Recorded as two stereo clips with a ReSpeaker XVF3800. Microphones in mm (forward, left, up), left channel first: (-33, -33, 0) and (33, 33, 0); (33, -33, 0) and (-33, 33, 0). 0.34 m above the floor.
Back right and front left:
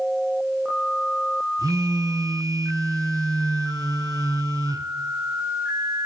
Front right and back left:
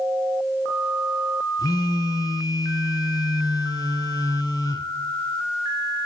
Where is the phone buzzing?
Straight ahead, 0.7 m.